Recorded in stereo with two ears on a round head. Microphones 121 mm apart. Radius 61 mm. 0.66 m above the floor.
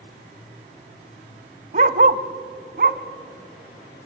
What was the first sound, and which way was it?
A dog barking, 50° right (ahead or behind).